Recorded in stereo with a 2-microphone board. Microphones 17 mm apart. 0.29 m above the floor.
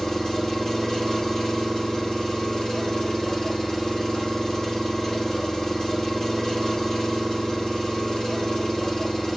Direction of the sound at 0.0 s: 40° left (ahead or behind).